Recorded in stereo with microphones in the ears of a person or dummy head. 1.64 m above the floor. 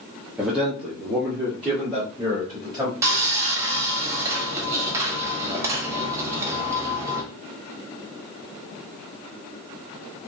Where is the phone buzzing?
I don't hear a phone buzzing.